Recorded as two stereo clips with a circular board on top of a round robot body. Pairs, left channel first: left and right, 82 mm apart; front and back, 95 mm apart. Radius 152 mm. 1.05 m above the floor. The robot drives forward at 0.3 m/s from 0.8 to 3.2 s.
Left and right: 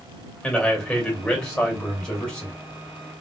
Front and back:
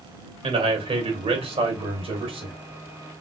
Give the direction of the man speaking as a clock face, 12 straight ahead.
6 o'clock.